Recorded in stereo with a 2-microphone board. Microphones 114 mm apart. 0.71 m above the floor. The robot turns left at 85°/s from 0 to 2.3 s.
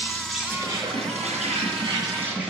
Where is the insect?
25° left, 2.5 m; by 2.5 s 170° right, 2.5 m.